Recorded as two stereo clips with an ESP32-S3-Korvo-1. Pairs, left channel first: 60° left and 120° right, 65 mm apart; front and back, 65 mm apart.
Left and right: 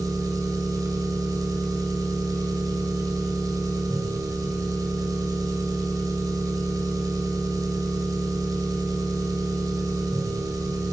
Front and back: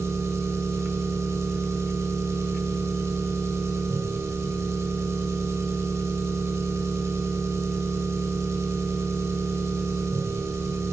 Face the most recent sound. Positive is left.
turn(degrees=-140)